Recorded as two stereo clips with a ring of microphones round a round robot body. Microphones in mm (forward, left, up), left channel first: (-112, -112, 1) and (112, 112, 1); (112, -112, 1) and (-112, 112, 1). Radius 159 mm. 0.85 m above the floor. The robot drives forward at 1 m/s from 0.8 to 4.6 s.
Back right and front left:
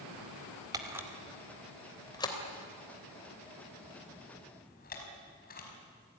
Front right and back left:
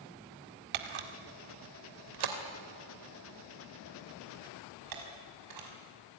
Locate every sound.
0.7 s a camera shutter: 125° left, 2.0 m; by 5.7 s 160° left, 5 m